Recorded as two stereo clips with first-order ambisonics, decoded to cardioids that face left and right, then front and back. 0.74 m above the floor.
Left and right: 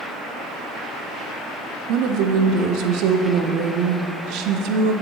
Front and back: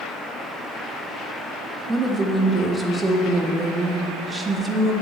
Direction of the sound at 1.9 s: 105° right.